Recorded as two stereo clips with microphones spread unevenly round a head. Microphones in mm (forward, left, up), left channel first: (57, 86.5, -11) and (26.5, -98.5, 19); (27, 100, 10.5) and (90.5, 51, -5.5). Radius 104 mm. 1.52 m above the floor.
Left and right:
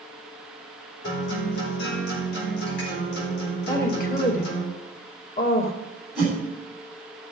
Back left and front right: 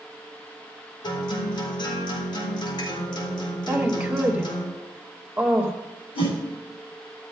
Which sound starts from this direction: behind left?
A guitar, at 1.0 s.